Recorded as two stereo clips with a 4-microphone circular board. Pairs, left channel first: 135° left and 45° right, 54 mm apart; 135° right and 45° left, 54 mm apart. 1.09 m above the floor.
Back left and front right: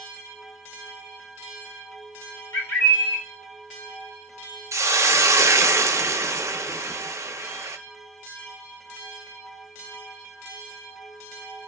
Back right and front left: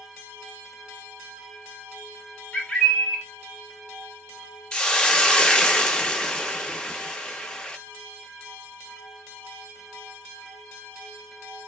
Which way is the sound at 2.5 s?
160° left.